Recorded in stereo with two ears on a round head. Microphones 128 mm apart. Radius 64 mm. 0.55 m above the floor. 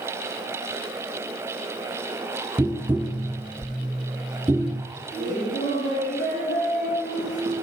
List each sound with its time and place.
2.6 s tapping: 10° right (ahead or behind), 0.6 m
5.1 s laughter: 75° left (ahead or behind), 4 m